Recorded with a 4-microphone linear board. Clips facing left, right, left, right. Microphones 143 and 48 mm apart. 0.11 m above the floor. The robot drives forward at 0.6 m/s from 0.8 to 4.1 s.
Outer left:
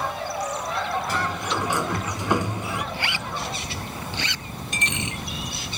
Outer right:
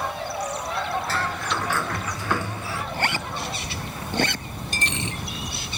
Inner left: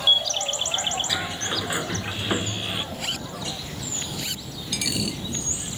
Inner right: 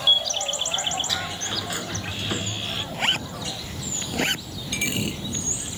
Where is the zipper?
45° right (ahead or behind); by 4.5 s 50° right (ahead or behind).